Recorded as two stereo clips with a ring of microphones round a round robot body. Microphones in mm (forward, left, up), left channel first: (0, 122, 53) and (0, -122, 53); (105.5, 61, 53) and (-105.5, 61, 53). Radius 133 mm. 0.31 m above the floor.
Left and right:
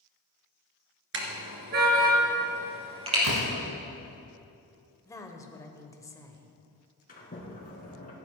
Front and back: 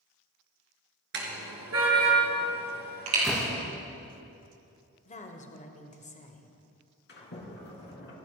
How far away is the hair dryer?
I don't hear a hair dryer.